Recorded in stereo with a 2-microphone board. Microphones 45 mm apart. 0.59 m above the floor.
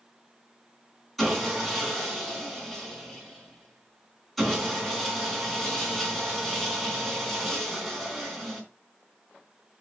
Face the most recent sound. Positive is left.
turn(degrees=0)  # may be behind; listen again after turning